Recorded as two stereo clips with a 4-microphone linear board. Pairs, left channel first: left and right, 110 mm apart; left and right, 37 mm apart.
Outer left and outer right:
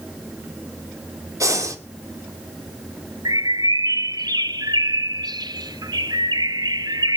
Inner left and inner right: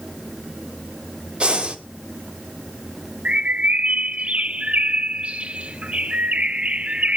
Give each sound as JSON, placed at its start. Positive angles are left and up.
{"t": 1.4, "sound": "breathing", "side_deg": -30, "distance_m": 2.0}
{"t": 3.2, "sound": "a bird", "side_deg": -40, "distance_m": 0.6}